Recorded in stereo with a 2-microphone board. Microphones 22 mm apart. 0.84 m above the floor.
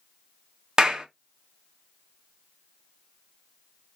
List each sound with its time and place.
0.8 s a clap: 25° right (ahead or behind), 0.6 m